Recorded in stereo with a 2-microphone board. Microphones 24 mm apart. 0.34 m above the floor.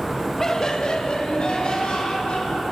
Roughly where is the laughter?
Left.